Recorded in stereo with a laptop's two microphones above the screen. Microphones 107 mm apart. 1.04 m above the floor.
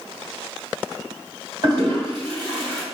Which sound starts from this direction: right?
A toilet flushing, at 1.6 s.